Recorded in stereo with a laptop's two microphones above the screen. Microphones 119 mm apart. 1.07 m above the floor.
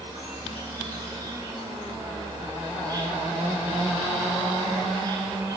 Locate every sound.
0.0 s an insect: 35° right (ahead or behind), 3.5 m